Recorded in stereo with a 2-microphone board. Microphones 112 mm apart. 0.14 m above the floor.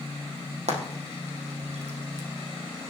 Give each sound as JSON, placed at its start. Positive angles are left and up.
{"t": 0.7, "sound": "frying", "side_deg": -75, "distance_m": 3.5}